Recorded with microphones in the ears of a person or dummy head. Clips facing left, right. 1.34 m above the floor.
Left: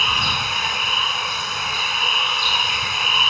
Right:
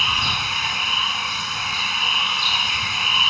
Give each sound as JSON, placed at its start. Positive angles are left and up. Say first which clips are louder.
{"t": 0.0, "sound": "running water", "louder": "left 2 dB", "side_deg": 50}